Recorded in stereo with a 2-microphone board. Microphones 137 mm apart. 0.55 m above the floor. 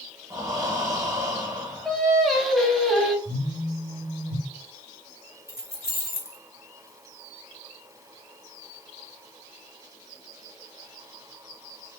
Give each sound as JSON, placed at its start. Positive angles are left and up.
{"t": 0.3, "sound": "breathing", "side_deg": -25, "distance_m": 0.9}
{"t": 1.9, "sound": "singing", "side_deg": 0, "distance_m": 0.8}
{"t": 3.2, "sound": "a phone buzzing", "side_deg": 50, "distance_m": 1.9}
{"t": 5.5, "sound": "keys jangling", "side_deg": -20, "distance_m": 0.9}